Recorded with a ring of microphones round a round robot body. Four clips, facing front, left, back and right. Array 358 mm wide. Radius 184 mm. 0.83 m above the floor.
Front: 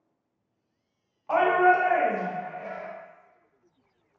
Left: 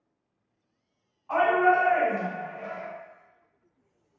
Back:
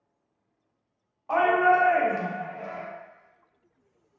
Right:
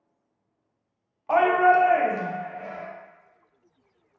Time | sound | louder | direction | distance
1.3 | a shout | right 3 dB, even | 85° right | 0.8 m